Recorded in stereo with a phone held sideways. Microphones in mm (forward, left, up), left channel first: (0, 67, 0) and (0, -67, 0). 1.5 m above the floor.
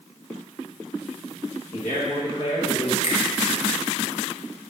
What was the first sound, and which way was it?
A man speaking, 80° left.